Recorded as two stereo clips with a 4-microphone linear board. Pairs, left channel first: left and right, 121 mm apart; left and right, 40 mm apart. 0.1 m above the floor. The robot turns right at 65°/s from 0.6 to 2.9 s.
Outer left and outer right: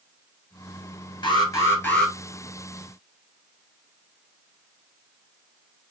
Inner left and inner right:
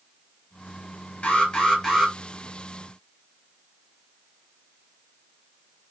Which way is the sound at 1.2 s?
120° left.